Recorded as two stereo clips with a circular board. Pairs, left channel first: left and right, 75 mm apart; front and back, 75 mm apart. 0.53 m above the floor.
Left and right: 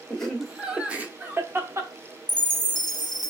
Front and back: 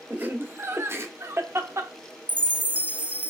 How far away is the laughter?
About 0.8 m.